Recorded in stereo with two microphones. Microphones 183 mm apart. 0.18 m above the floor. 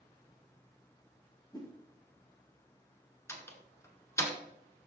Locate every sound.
1.5 s a whoosh: 20° left (ahead or behind), 2 m
3.3 s a door slam: 15° left (ahead or behind), 1.7 m